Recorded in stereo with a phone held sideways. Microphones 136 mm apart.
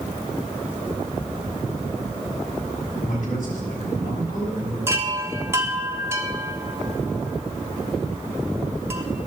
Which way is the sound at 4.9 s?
20° right (ahead or behind).